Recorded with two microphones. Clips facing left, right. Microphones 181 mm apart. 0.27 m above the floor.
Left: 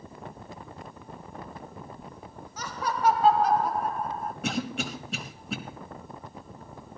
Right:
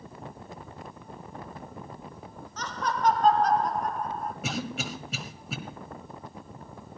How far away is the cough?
About 1.3 m.